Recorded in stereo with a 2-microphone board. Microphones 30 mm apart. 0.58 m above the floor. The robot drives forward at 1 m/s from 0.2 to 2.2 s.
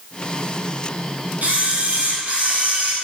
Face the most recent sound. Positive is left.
turn(degrees=-55)  # may be behind; listen again after turning